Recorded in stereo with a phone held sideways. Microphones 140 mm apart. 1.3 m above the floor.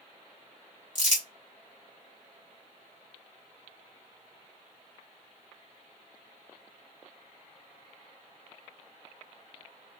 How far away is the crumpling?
About 1.4 m.